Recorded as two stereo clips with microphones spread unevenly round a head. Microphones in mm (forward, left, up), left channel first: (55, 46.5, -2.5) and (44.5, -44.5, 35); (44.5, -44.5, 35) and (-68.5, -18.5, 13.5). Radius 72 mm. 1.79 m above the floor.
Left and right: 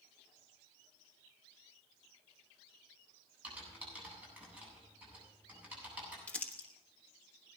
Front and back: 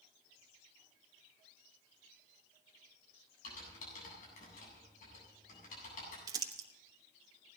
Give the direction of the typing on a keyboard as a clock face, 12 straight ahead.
1 o'clock.